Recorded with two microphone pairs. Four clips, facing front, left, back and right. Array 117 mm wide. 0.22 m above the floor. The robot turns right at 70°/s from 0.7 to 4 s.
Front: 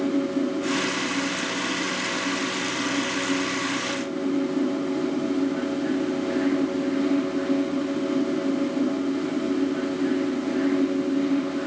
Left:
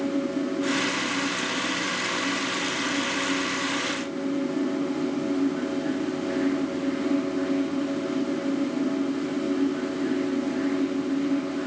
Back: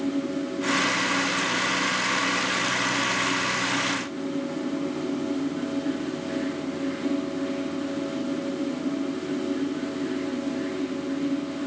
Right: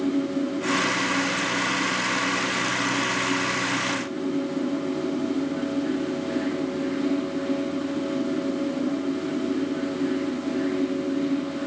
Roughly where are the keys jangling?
No keys jangling in this recording.